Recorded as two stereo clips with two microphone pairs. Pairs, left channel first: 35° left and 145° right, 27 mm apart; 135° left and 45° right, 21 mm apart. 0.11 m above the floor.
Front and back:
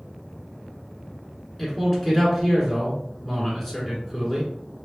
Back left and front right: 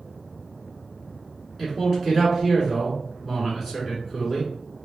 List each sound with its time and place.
1.6 s a man speaking: 50° right, 1.6 m